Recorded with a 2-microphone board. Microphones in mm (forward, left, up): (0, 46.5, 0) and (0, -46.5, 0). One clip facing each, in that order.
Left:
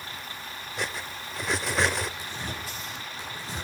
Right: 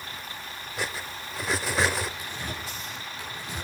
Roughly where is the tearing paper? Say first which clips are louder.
Even; left.